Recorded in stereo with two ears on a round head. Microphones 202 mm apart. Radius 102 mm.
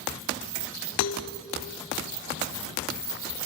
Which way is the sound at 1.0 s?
85° left.